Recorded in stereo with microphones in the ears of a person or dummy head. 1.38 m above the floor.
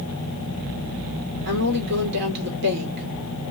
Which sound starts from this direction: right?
A woman speaking, at 1.4 s.